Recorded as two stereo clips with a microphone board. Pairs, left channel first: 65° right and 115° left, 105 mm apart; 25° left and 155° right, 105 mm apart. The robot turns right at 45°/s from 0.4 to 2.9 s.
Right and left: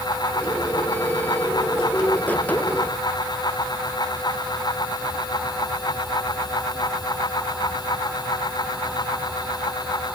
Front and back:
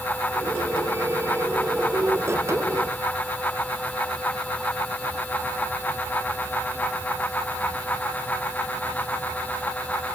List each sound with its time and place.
Only background noise.